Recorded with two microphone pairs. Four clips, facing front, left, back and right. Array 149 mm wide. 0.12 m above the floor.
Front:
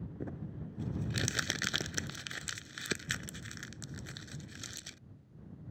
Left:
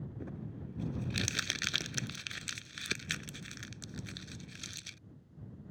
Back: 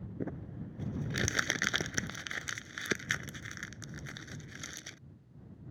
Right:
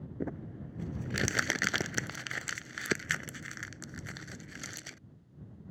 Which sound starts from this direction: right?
Crumpling, at 0.2 s.